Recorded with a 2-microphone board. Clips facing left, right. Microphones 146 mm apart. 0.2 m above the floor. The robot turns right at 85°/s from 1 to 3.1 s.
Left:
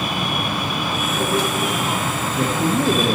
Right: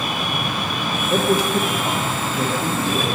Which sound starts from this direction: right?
A man speaking, at 1.1 s.